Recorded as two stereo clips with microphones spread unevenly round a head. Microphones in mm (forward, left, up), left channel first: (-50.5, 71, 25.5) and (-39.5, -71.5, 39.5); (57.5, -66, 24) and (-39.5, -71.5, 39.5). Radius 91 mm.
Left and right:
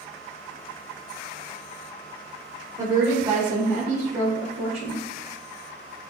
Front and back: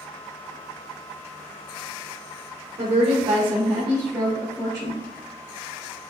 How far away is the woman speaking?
About 1.1 m.